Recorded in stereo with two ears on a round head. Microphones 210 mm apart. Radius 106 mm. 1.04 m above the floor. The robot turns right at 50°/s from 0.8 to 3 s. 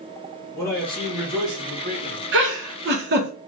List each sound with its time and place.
0.5 s a man speaking: 170° left, 1.7 m; by 2.2 s 120° right, 1.7 m
2.3 s a giggle: 55° right (ahead or behind), 1.1 m; by 3.3 s 45° right (ahead or behind), 1.1 m